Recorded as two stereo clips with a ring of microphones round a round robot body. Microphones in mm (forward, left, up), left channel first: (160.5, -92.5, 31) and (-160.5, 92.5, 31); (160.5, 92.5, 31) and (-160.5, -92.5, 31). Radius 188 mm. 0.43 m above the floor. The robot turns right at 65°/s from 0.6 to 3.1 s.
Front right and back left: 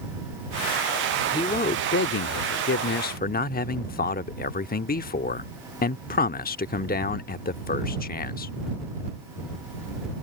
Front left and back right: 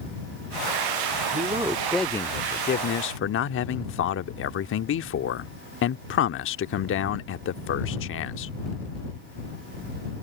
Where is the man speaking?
100° right; by 8.5 s 15° left.